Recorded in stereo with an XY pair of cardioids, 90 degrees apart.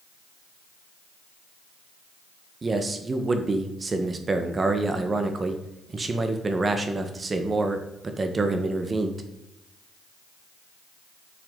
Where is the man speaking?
35° right, 1.4 m.